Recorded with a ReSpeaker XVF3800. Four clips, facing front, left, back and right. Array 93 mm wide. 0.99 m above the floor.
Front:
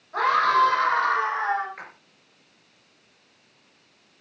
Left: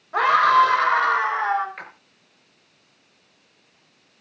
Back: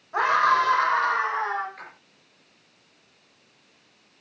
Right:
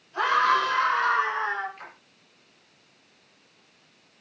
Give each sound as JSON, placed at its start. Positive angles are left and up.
{"t": 0.1, "sound": "a scream", "azimuth_deg": 105, "distance_m": 6.0}
{"t": 1.8, "sound": "a splash", "azimuth_deg": 75, "distance_m": 3.5}